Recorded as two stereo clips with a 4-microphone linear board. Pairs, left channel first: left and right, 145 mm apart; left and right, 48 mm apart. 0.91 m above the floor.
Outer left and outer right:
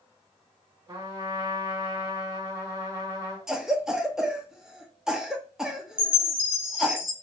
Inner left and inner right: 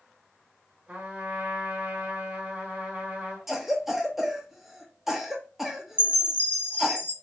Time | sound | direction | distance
0.9 | a trumpet | 25° right (ahead or behind) | 1.8 m
3.5 | a cough | 5° right (ahead or behind) | 0.7 m
6.0 | a chime | 40° left (ahead or behind) | 0.8 m